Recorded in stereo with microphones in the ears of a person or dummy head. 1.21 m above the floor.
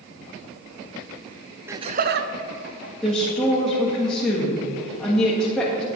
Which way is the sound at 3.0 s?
5° left (ahead or behind).